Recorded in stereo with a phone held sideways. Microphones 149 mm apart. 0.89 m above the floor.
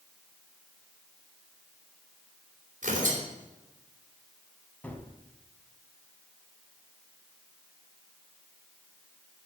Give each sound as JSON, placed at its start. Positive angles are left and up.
{"t": 2.8, "sound": "tearing paper", "side_deg": -60, "distance_m": 3.0}
{"t": 4.8, "sound": "a gunshot", "side_deg": 10, "distance_m": 1.3}